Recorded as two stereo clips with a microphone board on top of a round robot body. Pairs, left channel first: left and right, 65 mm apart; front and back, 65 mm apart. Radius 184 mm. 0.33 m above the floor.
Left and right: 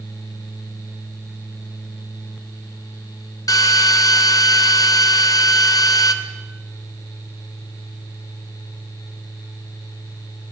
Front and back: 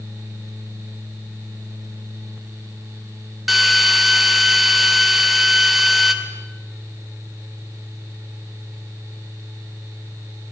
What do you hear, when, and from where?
3.5 s a drill: 90° left, 1.8 m